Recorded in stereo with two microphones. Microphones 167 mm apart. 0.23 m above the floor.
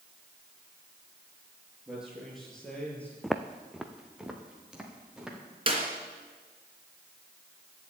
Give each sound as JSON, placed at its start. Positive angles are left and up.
{"t": 1.9, "sound": "a man speaking", "side_deg": -5, "distance_m": 5.5}
{"t": 3.2, "sound": "footsteps", "side_deg": 0, "distance_m": 0.7}
{"t": 5.7, "sound": "a clap", "side_deg": -35, "distance_m": 2.5}